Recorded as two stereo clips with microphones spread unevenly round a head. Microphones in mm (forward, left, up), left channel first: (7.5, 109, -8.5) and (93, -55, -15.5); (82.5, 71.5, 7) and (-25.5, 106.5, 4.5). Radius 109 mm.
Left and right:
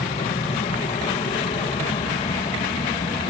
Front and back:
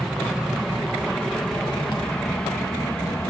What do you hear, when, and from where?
0.0 s an aircraft: 75° left; by 3.3 s 60° left